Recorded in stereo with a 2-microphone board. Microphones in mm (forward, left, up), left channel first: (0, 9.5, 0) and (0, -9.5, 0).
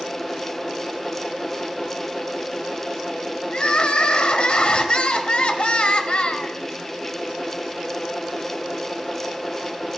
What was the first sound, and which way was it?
Crying, 60° left (ahead or behind).